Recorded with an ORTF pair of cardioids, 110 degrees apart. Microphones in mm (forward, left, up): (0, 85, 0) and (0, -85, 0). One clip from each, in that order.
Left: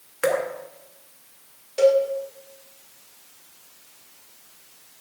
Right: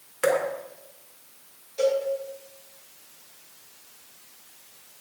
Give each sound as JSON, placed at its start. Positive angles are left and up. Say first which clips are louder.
{"t": 0.2, "sound": "dripping", "louder": "even", "azimuth_deg": 15, "distance_m": 1.2}
{"t": 1.8, "sound": "a cowbell", "louder": "left 6 dB", "azimuth_deg": 60, "distance_m": 1.9}